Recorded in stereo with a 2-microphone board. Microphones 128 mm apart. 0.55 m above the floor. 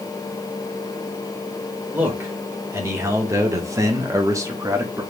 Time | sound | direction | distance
1.9 | a man speaking | 15° right (ahead or behind) | 1.8 m